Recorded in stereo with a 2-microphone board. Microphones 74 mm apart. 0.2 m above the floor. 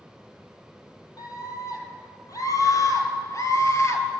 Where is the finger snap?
I don't hear a finger snap.